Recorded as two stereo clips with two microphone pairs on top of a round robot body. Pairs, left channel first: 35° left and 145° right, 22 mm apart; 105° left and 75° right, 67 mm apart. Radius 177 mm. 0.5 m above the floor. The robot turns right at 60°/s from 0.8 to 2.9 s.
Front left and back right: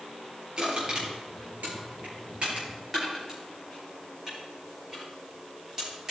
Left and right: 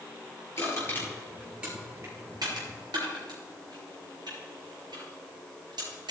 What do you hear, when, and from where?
0.6 s crushing: 160° left, 5 m; by 6.1 s 75° right, 5 m